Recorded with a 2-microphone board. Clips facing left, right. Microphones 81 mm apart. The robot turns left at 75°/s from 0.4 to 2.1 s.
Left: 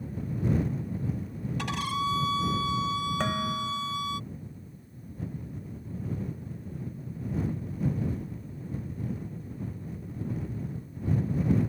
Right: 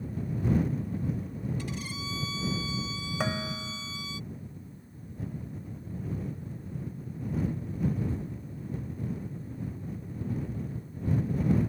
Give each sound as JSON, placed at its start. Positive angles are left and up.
{"t": 1.6, "sound": "a violin", "azimuth_deg": 95}
{"t": 3.2, "sound": "dishes clattering", "side_deg": -10}